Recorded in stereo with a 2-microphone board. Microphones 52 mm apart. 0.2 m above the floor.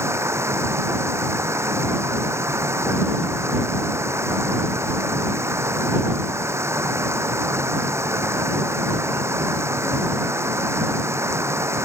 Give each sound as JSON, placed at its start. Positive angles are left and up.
{"t": 0.0, "sound": "running water", "side_deg": -60}